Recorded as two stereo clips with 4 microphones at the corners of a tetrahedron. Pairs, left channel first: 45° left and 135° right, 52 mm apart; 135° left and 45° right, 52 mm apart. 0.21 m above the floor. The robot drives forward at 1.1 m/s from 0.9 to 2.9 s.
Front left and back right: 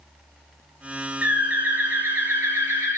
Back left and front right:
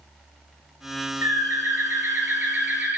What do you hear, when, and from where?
1.2 s a bird: 75° right, 4 m; by 3.0 s 105° right, 4 m